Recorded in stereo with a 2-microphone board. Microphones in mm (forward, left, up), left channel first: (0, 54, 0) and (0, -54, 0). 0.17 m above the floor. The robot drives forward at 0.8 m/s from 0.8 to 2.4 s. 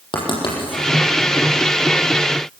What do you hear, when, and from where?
0.1 s writing: 50° left (ahead or behind), 7.5 m